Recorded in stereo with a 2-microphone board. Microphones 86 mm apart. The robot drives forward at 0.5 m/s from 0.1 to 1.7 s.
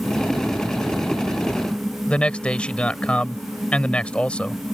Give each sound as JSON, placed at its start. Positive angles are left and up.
{"t": 2.1, "sound": "a man speaking", "side_deg": 15}